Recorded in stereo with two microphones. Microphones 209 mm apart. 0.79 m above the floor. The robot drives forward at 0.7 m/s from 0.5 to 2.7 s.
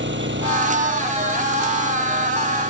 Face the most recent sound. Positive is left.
turn(degrees=-60)  # may be behind; listen again after turning